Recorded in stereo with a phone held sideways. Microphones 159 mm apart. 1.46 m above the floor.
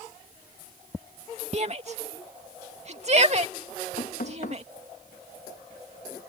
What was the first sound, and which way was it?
A shout, 45° right (ahead or behind).